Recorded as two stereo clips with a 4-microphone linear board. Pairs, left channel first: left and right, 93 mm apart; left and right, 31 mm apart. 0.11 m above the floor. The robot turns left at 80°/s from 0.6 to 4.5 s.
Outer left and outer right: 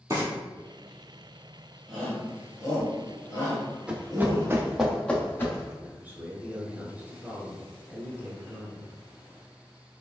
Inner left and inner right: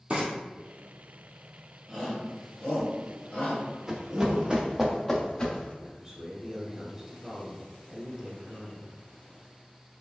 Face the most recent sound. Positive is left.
turn(degrees=-20)  # may be behind; listen again after turning